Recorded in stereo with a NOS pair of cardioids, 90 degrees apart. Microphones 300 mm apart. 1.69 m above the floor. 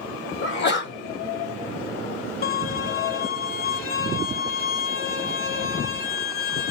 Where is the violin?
45° left, 1.2 m.